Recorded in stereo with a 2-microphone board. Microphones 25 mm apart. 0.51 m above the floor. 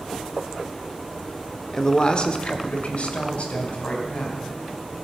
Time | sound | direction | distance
1.7 | a woman speaking | 25° left (ahead or behind) | 1.0 m